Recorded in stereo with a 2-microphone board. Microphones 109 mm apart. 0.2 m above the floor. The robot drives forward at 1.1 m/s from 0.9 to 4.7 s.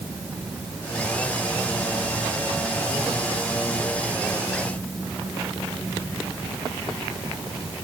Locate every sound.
Only background noise.